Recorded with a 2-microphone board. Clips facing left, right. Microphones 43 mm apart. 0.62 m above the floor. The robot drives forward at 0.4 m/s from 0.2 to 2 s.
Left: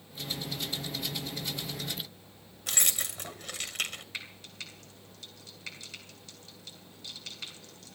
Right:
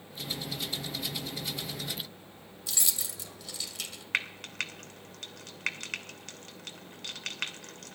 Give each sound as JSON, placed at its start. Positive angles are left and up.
{"t": 2.7, "sound": "keys jangling", "side_deg": 50, "distance_m": 2.0}
{"t": 4.1, "sound": "frying", "side_deg": -60, "distance_m": 1.9}